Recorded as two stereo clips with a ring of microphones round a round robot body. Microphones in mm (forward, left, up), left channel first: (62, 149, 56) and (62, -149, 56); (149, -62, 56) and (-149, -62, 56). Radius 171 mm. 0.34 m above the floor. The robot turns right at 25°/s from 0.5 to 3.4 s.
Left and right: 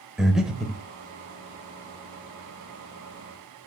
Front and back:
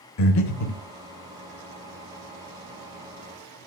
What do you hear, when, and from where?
0.2 s breathing: straight ahead, 1.0 m; by 0.8 s 5° left, 1.0 m